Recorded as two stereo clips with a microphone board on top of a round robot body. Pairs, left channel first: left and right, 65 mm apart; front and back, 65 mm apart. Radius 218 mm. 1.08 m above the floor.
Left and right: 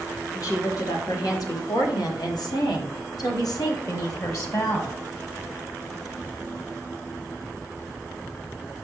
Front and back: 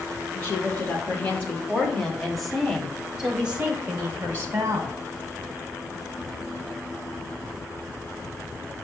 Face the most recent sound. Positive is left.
turn(degrees=130)